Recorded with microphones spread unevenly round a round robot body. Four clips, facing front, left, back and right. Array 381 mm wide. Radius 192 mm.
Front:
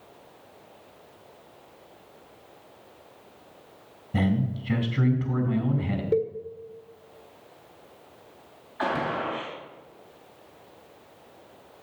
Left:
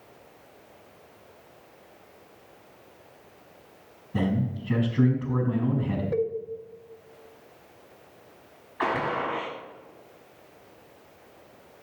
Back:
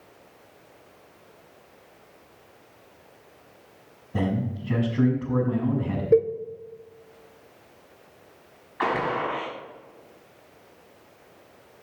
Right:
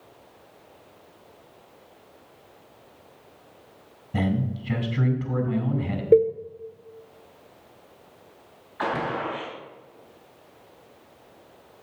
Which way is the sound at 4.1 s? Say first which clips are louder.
Right 1 dB, front 1 dB; 45° right.